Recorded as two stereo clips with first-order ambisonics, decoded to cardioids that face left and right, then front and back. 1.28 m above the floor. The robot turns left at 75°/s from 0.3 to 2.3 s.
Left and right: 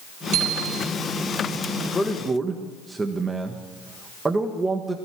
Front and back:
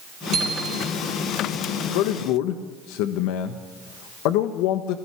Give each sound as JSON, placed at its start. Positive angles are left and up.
{"t": 0.3, "sound": "a bicycle bell", "azimuth_deg": -120, "distance_m": 3.5}
{"t": 1.9, "sound": "a man speaking", "azimuth_deg": 15, "distance_m": 1.4}